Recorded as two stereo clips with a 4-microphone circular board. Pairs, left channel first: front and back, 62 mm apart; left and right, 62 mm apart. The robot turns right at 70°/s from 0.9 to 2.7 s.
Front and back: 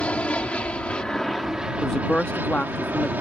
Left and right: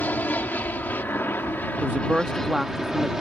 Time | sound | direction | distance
0.0 | an aircraft | 55° left | ?
1.8 | a woman speaking | 70° right | ?